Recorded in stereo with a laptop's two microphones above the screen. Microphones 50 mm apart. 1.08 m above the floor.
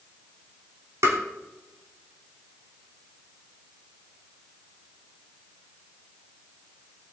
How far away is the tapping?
About 3 m.